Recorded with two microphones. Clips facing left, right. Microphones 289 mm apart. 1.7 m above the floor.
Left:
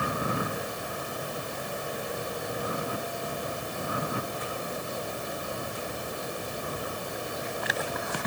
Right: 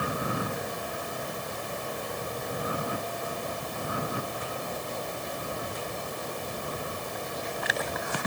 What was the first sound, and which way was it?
Only background noise.